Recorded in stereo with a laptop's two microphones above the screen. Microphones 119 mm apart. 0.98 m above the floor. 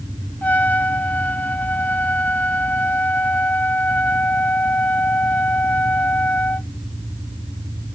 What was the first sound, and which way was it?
A trumpet, 15° left (ahead or behind).